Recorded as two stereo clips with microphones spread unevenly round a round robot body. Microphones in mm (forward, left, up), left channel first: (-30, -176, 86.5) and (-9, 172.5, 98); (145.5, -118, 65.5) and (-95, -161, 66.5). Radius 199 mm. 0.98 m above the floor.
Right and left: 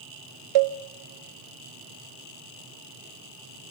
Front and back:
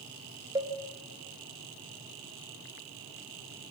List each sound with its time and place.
0.6 s a cowbell: 110° left, 1.0 m